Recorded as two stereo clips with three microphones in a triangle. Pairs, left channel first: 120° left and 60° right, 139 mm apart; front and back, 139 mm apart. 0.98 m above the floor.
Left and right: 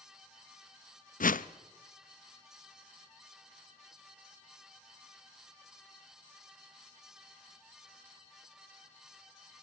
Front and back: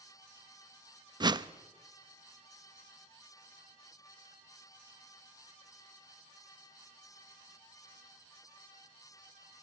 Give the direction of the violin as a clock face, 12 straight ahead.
No violin in this recording.